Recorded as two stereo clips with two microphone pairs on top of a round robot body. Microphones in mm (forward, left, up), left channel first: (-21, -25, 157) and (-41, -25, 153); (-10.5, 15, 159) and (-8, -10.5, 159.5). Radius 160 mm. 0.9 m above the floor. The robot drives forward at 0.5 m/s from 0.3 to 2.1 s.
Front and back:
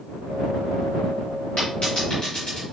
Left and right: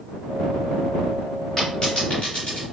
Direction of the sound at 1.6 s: 25° left.